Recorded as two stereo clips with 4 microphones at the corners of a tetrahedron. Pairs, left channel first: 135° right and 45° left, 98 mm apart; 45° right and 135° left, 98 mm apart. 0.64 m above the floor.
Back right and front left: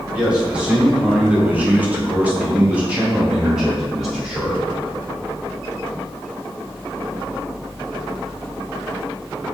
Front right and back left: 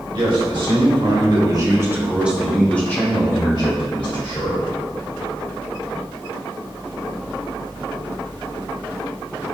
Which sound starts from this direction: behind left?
A man speaking, at 0.1 s.